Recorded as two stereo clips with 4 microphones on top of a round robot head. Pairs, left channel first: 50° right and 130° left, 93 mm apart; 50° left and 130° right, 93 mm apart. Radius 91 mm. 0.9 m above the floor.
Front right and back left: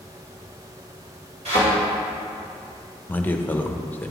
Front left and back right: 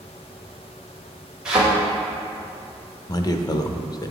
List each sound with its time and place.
1.4 s a thud: 145° left, 2.5 m
3.1 s a man speaking: 15° left, 0.6 m